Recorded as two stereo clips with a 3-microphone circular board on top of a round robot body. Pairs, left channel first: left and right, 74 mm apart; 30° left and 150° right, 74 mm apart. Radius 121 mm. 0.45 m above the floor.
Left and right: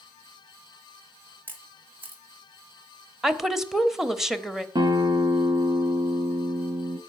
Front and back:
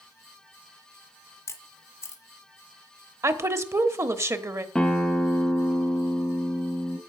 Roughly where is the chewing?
No chewing in this recording.